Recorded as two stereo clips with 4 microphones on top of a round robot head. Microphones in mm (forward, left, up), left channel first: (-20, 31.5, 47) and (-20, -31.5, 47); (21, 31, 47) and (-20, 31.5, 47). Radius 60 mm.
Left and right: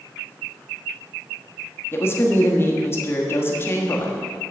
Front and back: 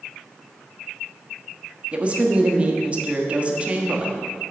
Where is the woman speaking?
130° left, 1.3 m.